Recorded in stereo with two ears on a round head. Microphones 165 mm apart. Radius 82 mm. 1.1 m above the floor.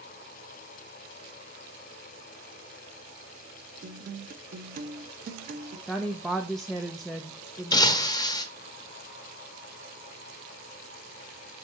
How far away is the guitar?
About 0.7 m.